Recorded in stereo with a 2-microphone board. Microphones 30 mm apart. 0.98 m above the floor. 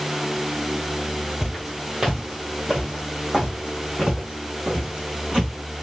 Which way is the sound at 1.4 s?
5° right (ahead or behind).